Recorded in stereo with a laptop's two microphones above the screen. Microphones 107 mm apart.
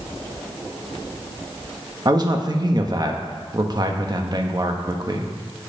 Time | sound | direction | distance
2.0 | a man speaking | 40° right (ahead or behind) | 1.3 m